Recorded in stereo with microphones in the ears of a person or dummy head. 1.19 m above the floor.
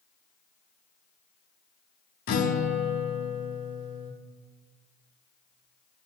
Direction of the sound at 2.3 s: 55° left (ahead or behind).